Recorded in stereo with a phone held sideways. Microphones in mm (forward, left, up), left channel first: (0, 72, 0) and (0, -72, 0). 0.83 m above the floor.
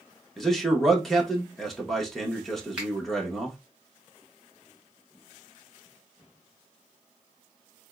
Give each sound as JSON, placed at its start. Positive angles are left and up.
{"t": 0.4, "sound": "a man speaking", "side_deg": 5, "distance_m": 1.1}
{"t": 2.8, "sound": "a finger snap", "side_deg": -5, "distance_m": 2.0}